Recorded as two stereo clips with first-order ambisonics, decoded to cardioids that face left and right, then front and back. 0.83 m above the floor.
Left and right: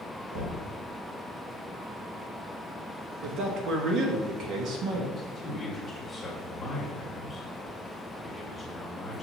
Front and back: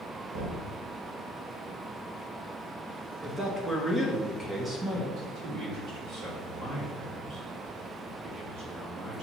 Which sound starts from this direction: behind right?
Knocking, at 0.3 s.